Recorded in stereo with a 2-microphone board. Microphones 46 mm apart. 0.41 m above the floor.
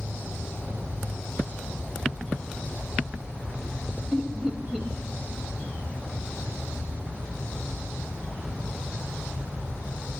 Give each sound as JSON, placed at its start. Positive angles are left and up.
{"t": 4.1, "sound": "laughter", "side_deg": -5, "distance_m": 1.2}